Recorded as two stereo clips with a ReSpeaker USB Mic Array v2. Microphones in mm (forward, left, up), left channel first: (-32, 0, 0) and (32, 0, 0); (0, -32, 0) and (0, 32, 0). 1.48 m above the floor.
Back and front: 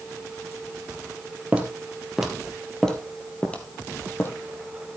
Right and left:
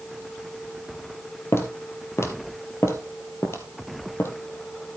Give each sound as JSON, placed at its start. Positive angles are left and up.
{"t": 1.5, "sound": "footsteps", "azimuth_deg": -65, "distance_m": 2.0}